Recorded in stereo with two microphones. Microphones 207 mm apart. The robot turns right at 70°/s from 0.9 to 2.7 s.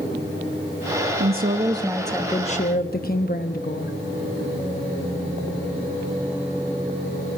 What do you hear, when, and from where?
1.2 s a woman speaking: 60° right, 0.9 m; by 4.0 s 45° left, 0.9 m